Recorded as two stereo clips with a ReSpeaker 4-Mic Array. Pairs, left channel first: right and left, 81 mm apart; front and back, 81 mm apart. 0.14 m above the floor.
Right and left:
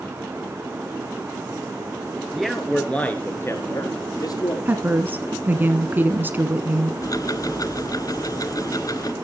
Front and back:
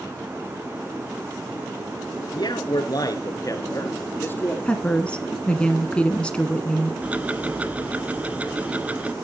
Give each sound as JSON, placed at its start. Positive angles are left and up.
{"t": 2.3, "sound": "a man speaking", "azimuth_deg": 5, "distance_m": 2.5}
{"t": 4.7, "sound": "a woman speaking", "azimuth_deg": 60, "distance_m": 1.2}
{"t": 7.0, "sound": "ticking", "azimuth_deg": -110, "distance_m": 0.8}